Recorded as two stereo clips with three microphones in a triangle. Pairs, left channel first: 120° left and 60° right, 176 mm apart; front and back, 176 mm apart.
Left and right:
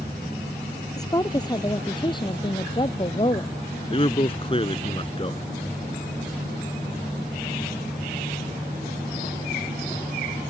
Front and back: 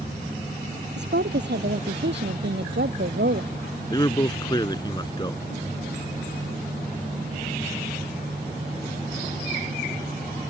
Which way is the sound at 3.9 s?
65° left.